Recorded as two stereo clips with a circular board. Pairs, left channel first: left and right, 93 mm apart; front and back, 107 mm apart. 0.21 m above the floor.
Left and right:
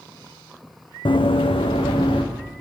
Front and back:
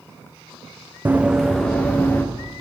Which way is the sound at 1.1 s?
110° left.